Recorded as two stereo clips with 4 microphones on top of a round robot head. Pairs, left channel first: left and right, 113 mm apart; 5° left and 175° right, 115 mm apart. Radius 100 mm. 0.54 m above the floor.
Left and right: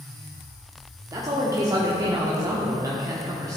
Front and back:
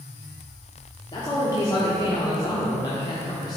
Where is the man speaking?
35° right, 1.1 m.